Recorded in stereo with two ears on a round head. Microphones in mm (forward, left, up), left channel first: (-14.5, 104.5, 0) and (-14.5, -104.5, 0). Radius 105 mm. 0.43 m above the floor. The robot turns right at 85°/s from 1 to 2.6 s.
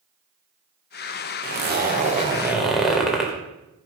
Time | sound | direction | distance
1.4 | a zipper | 100° right | 1.8 m